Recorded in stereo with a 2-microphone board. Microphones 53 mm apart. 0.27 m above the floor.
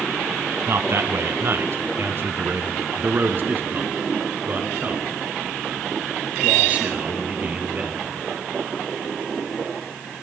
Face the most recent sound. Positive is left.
turn(degrees=-25)  # may be behind; listen again after turning